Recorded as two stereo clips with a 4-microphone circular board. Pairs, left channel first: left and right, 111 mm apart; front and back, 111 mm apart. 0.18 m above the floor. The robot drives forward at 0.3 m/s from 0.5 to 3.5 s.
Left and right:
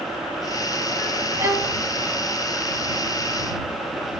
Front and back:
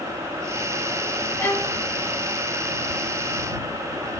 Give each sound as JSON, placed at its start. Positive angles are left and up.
{"t": 1.4, "sound": "a violin", "azimuth_deg": -45, "distance_m": 0.8}